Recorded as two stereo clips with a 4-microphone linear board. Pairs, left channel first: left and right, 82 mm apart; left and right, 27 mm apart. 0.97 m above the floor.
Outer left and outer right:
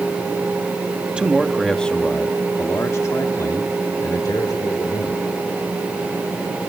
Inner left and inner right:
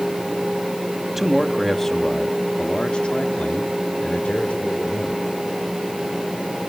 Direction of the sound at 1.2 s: 10° right (ahead or behind).